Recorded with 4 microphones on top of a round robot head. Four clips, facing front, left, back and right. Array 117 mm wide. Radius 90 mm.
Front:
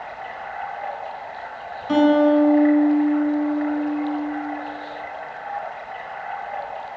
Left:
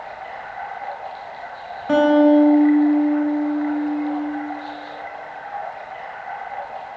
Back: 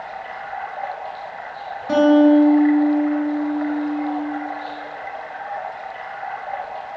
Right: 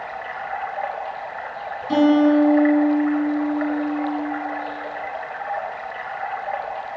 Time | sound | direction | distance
0.0 | running water | 115° right | 4 m
1.9 | a guitar | 120° left | 4.5 m